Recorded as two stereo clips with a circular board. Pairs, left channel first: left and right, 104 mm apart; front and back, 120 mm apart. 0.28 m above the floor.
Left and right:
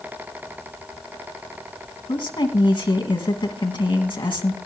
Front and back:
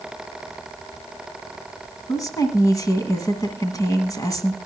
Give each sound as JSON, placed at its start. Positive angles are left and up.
{"t": 2.1, "sound": "a woman speaking", "azimuth_deg": 55, "distance_m": 2.0}